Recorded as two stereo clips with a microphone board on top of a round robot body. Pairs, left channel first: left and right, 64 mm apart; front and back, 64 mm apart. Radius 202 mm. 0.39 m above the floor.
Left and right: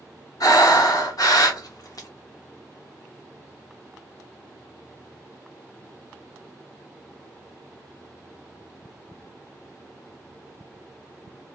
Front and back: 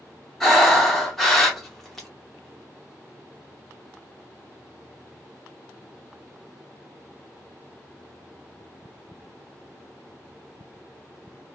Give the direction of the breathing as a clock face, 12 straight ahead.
9 o'clock.